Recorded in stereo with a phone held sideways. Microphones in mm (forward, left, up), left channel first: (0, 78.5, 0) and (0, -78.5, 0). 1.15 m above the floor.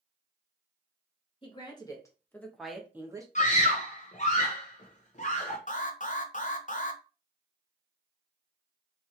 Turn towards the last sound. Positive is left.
turn(degrees=55)  # may be behind; listen again after turning